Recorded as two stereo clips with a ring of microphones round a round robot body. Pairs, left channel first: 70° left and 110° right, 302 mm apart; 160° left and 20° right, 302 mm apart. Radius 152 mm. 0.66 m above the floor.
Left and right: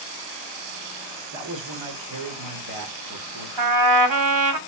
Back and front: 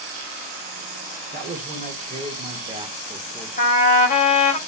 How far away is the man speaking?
About 2.5 m.